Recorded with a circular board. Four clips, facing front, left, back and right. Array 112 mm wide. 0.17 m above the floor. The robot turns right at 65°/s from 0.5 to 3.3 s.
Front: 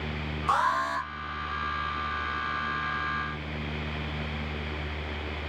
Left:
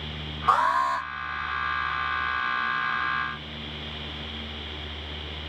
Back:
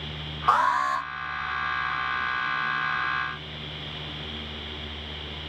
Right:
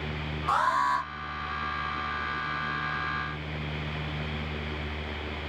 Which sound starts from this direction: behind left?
An alarm, at 0.5 s.